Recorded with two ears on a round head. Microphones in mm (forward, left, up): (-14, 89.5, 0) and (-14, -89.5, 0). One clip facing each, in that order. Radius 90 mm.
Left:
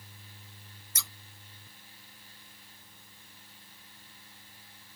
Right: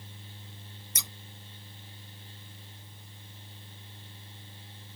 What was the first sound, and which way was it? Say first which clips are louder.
Scissors: right 1 dB; 15° right (ahead or behind).